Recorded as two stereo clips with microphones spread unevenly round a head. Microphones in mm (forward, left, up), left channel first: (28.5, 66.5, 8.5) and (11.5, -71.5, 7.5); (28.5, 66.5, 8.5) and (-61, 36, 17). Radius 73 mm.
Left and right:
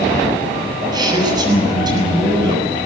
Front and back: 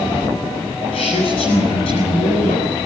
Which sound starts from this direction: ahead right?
A man speaking, at 0.9 s.